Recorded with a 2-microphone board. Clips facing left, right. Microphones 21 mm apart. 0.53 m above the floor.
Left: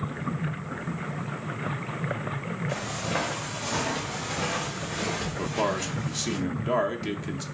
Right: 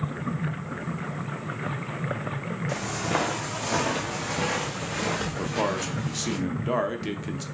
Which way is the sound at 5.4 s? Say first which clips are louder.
Left 2 dB; 5° left (ahead or behind).